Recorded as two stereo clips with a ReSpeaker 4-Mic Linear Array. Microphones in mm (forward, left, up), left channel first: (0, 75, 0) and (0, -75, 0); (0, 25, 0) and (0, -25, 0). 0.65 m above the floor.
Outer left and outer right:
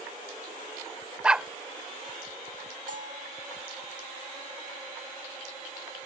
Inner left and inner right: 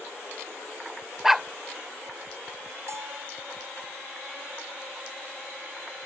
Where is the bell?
65° right (ahead or behind).